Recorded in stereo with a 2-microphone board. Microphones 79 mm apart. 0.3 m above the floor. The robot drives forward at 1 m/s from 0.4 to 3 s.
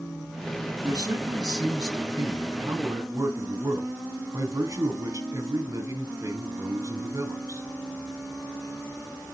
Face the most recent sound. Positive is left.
turn(degrees=-50)  # may be behind; listen again after turning